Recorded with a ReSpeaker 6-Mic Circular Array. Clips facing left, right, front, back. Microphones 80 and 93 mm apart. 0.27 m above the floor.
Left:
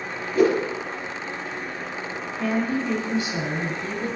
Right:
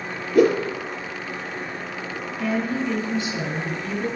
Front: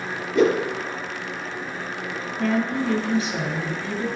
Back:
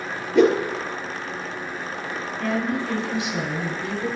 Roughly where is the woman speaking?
Ahead left.